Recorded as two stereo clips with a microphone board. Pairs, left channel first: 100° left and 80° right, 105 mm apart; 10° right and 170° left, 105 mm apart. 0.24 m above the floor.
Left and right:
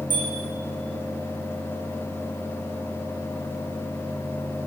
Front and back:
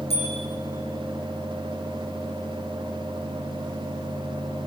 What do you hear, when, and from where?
0.1 s a bicycle bell: 30° right, 8.5 m